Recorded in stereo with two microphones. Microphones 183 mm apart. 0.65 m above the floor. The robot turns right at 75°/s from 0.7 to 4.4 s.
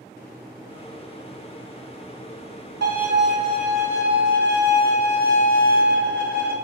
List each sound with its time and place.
2.8 s a violin: 105° right, 0.9 m; by 6.6 s 15° left, 0.9 m